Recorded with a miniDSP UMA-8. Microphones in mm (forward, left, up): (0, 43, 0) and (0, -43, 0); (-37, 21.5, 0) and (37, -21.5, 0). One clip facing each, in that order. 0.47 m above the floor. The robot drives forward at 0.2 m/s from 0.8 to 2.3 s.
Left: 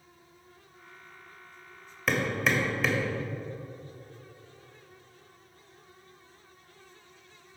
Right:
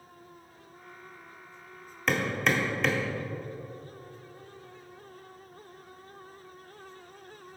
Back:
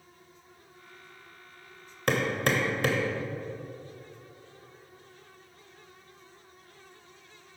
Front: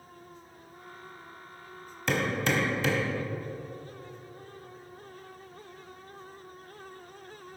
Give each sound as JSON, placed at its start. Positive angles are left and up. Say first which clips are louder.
{"t": 2.1, "sound": "hammering", "louder": "even, back 1 dB", "azimuth_deg": 180, "distance_m": 1.6}